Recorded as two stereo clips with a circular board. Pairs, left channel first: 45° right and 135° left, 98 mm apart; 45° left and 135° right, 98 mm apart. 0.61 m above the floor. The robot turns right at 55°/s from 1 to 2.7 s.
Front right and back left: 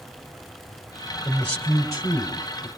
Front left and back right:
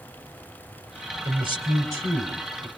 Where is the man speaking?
130° right, 2.5 m; by 2.7 s 55° right, 2.5 m.